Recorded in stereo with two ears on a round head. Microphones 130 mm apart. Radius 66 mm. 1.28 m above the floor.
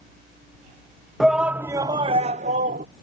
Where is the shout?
Centre (ahead or behind); by 2.9 s 60° right (ahead or behind).